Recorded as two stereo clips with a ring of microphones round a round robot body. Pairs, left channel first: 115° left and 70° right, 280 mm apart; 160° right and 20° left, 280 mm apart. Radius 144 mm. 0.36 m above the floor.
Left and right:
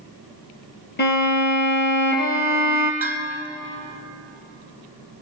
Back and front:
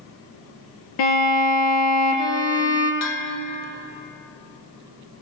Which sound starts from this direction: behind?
A violin, at 1.0 s.